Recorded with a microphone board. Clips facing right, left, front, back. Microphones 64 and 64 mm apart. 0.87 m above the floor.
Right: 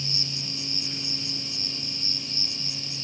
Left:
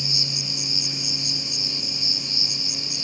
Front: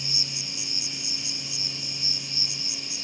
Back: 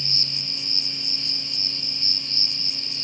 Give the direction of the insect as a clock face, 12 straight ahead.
9 o'clock.